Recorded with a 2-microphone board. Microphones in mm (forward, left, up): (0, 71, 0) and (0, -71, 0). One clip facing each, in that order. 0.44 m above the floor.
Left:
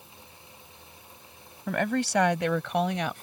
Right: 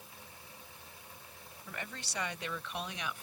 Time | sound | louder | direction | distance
1.7 | a woman speaking | left 19 dB | 70° left (ahead or behind) | ?